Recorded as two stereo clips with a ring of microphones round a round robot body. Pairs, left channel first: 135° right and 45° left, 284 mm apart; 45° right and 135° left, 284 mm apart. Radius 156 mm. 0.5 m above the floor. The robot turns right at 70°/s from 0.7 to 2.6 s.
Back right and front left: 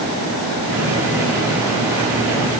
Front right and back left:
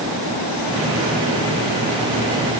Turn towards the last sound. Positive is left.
No sound to turn to.